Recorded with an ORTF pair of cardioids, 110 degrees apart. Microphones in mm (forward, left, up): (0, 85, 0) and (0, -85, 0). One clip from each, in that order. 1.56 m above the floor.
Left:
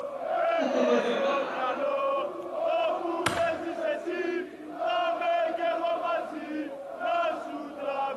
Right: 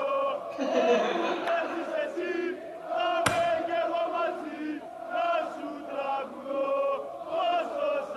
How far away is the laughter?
About 3 m.